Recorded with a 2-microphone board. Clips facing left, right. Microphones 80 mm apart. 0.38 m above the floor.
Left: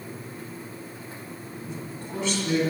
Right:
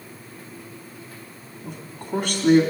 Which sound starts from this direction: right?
A man speaking, at 1.6 s.